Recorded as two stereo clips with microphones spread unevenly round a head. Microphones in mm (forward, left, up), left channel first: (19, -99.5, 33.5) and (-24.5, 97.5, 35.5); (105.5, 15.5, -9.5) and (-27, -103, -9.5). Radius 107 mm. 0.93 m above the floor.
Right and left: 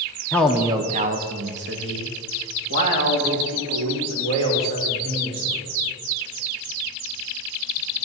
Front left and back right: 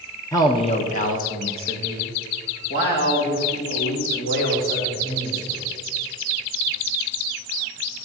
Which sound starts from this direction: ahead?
A man speaking, at 0.3 s.